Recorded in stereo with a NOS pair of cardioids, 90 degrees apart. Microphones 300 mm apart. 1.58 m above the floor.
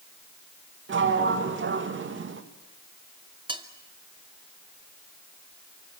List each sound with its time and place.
0.9 s a sliding door: 40° right, 2 m
3.5 s cutlery clinking: 15° right, 2.5 m